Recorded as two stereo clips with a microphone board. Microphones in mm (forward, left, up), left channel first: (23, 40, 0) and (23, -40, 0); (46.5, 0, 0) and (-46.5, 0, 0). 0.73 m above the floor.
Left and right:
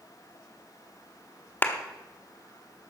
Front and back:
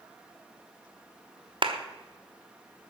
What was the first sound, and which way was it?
A clap, 150° left.